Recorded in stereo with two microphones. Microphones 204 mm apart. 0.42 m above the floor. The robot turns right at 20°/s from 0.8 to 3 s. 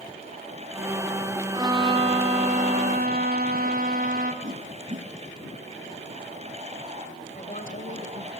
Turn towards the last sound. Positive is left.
turn(degrees=40)  # may be behind; listen again after turning